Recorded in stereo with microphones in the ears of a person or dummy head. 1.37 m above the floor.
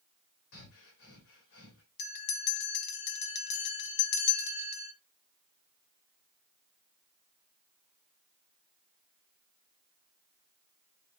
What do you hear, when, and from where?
0.5 s breathing: 65° left (ahead or behind), 3 m
2.0 s a bell: 55° left (ahead or behind), 1.0 m